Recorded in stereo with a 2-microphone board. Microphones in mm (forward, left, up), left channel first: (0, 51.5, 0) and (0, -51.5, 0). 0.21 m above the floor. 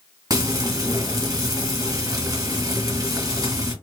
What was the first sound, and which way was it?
Frying, 40° right (ahead or behind).